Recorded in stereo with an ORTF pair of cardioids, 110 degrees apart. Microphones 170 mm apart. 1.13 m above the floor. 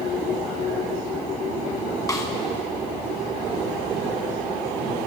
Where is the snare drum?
20° left, 6 m.